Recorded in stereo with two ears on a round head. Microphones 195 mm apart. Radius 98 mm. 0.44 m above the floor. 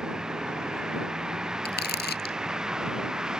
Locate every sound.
0.0 s a vehicle: 5° right (ahead or behind)
1.6 s crumpling: 50° left (ahead or behind)